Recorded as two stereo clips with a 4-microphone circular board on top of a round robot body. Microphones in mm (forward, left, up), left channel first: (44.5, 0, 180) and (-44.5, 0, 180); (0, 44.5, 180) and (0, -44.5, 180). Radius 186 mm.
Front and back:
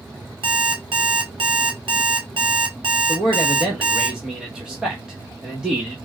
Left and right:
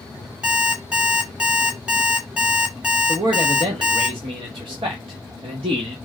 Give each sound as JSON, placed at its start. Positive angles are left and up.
{"t": 0.4, "sound": "an alarm clock", "azimuth_deg": -165, "distance_m": 0.7}
{"t": 3.1, "sound": "a man speaking", "azimuth_deg": -100, "distance_m": 1.0}